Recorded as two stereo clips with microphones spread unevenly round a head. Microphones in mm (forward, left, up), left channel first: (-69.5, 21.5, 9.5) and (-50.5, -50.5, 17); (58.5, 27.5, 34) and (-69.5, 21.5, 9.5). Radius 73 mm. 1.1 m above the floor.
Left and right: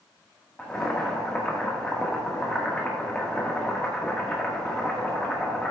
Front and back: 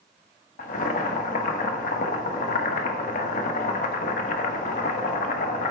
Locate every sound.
0.6 s boiling: 20° left, 1.3 m